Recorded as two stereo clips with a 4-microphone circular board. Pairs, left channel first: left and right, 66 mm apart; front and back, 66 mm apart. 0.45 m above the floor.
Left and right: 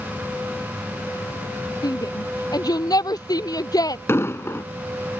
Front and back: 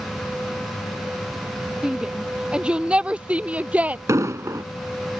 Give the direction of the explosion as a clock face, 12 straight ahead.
7 o'clock.